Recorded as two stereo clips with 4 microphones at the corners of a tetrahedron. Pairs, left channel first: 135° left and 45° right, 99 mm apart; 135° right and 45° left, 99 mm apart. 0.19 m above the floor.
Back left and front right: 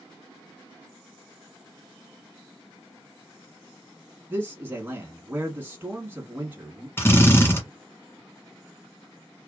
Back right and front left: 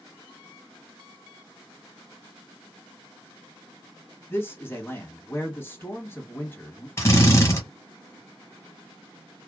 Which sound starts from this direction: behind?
A drill, at 7.0 s.